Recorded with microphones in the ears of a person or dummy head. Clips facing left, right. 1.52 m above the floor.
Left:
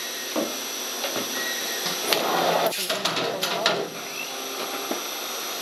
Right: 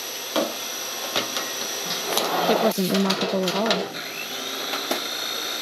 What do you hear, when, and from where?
2.5 s a woman speaking: 60° right (ahead or behind)
3.9 s a blender: 30° right (ahead or behind)